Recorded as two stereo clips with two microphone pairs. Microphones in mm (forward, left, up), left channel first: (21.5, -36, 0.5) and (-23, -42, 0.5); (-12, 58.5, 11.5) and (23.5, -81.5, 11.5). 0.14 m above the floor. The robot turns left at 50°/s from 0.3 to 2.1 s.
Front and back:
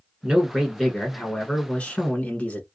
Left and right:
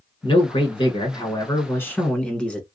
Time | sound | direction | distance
0.2 | a man speaking | 115° left | 1.2 m